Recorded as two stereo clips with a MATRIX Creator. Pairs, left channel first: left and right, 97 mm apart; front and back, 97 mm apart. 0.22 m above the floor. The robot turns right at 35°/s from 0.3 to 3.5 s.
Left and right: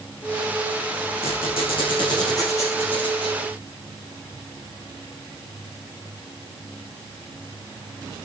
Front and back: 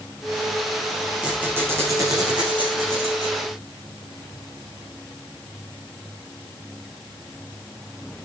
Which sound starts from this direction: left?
A squeak, at 1.2 s.